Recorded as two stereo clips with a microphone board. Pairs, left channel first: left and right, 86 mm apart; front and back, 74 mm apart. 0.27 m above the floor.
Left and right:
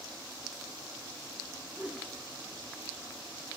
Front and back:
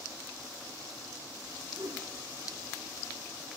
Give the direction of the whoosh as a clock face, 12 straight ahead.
5 o'clock.